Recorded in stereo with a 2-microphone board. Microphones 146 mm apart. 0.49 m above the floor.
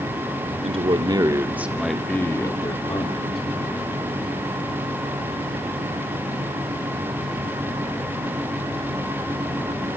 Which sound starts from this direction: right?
A man speaking, at 0.6 s.